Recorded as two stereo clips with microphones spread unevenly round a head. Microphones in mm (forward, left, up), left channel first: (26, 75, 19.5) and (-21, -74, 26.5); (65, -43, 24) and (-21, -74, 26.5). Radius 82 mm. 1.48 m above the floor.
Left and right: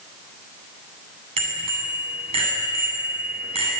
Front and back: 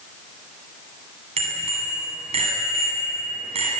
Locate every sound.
1.4 s a bicycle bell: 165° right, 9 m